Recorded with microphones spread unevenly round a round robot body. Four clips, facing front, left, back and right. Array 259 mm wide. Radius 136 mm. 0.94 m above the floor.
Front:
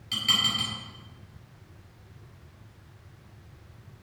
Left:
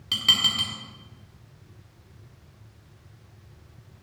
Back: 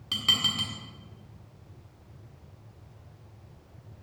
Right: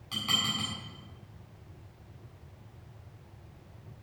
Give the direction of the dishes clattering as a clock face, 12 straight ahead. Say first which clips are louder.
Left 4 dB, front 2 dB; 8 o'clock.